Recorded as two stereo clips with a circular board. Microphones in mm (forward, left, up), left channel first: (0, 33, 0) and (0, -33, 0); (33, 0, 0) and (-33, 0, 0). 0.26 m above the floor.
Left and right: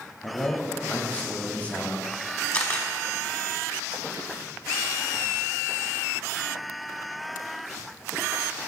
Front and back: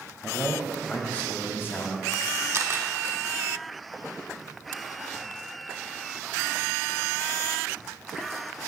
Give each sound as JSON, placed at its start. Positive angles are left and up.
{"t": 0.2, "sound": "a man speaking", "azimuth_deg": 95, "distance_m": 0.9}
{"t": 2.5, "sound": "a camera shutter", "azimuth_deg": 155, "distance_m": 1.0}